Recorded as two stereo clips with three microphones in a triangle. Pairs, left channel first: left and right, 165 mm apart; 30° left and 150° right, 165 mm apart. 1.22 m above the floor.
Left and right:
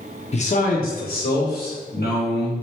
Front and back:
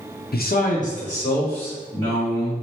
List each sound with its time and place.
0.3 s a man speaking: 45° left, 0.6 m; by 2.5 s 90° left, 1.5 m